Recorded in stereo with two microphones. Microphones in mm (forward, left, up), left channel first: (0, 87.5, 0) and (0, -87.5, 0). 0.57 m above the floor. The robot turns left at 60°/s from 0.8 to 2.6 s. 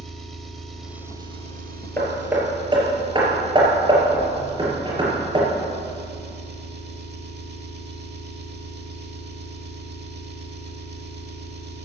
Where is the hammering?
10° left (ahead or behind), 3.5 m; by 5.5 s 30° right (ahead or behind), 3.5 m.